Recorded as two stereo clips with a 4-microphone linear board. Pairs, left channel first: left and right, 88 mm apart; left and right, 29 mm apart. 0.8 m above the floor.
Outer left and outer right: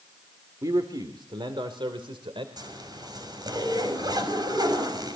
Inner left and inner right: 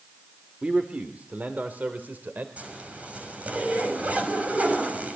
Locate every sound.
0.6 s a man speaking: 45° right (ahead or behind), 2 m; by 2.5 s 80° right, 3 m
2.6 s a zipper: 50° right (ahead or behind), 6 m